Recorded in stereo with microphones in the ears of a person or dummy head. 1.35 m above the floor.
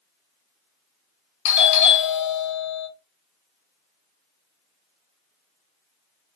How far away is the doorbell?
About 1.2 m.